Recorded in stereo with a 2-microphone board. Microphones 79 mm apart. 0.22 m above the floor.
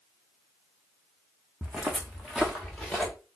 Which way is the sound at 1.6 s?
20° right (ahead or behind).